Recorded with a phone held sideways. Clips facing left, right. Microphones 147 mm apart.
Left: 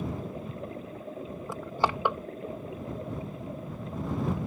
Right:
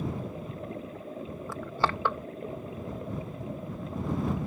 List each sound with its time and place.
1.5 s crushing: 15° left (ahead or behind)